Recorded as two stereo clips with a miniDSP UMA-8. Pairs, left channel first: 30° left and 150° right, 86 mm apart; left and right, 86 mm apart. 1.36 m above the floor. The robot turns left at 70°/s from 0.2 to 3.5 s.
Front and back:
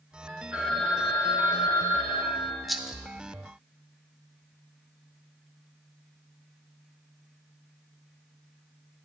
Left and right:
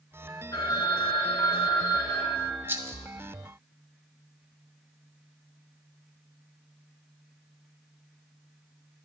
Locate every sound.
0.5 s a phone ringing: 140° left, 2.5 m; by 2.6 s 5° right, 2.5 m
2.7 s a rattle: 60° right, 0.6 m; by 3.0 s 80° right, 0.6 m